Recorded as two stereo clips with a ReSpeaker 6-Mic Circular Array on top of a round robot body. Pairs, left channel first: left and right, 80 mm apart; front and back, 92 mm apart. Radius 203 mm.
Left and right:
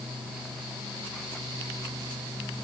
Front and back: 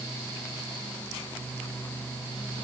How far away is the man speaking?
I don't hear a man speaking.